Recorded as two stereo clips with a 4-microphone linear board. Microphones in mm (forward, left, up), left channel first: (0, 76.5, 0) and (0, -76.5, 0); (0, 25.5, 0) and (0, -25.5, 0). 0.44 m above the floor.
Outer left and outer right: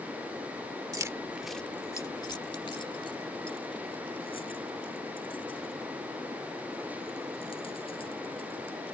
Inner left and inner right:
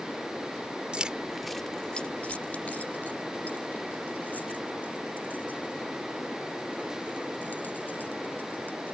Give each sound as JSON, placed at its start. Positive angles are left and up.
{"t": 0.9, "sound": "keys jangling", "side_deg": -20}